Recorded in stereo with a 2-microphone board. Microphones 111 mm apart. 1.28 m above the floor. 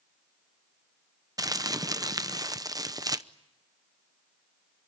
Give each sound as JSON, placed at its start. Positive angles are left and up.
{"t": 1.4, "sound": "crumpling", "side_deg": -35, "distance_m": 0.7}